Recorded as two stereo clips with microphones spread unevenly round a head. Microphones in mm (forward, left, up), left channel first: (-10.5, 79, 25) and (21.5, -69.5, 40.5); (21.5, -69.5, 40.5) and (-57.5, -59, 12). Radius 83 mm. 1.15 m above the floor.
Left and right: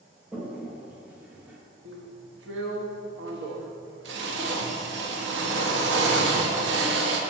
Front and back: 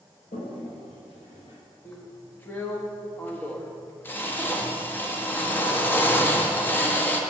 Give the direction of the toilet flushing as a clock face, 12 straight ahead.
12 o'clock.